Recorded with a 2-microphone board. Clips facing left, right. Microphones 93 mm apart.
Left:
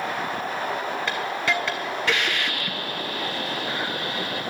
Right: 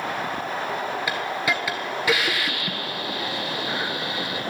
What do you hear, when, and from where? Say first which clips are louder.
1.1 s a hiss: left 1 dB; 10° right (ahead or behind), 1.4 m